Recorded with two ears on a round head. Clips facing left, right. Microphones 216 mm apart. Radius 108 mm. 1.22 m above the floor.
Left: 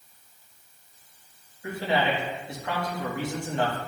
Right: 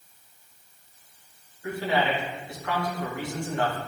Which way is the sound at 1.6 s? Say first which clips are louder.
Even; 20° left (ahead or behind).